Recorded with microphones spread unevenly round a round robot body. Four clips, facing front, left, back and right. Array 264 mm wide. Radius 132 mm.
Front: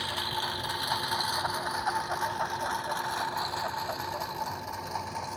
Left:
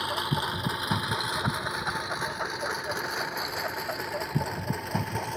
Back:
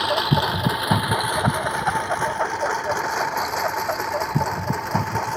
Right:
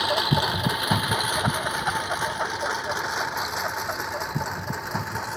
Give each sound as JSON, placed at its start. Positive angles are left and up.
{"t": 0.0, "sound": "a lawn mower", "azimuth_deg": -155}